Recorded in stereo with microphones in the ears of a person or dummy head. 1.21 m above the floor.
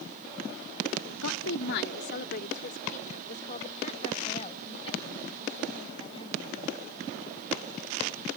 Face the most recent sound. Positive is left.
turn(degrees=25)  # may be behind; listen again after turning